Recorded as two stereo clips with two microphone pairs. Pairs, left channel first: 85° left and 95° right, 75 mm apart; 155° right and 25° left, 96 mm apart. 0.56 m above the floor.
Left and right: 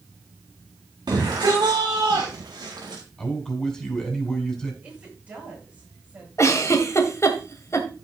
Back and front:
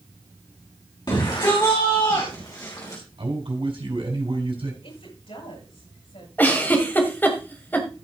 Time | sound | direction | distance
1.1 | a shout | 115° right | 3.5 m
3.2 | a man speaking | 10° left | 4.5 m
4.8 | a woman speaking | 160° right | 10 m
6.4 | a giggle | 135° left | 2 m